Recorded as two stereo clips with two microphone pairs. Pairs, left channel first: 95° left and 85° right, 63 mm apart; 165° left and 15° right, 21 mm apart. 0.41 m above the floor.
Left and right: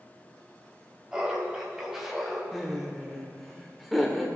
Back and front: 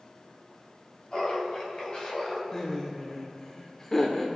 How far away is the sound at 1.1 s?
About 2 m.